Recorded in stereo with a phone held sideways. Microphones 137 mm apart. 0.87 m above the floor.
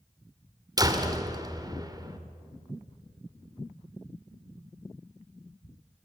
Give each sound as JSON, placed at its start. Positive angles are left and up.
{"t": 0.8, "sound": "a door slam", "side_deg": -30, "distance_m": 2.0}